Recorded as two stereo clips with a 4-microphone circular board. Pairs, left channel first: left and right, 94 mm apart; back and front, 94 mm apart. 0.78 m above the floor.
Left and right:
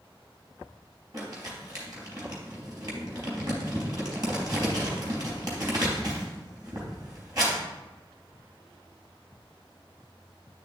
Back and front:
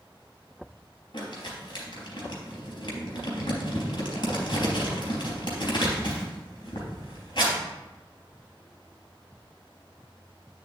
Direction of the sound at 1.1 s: 140° right.